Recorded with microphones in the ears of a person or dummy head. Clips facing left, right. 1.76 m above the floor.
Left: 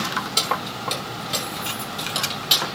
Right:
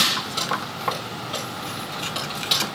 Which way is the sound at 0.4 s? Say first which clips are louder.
Left 2 dB; 50° left (ahead or behind).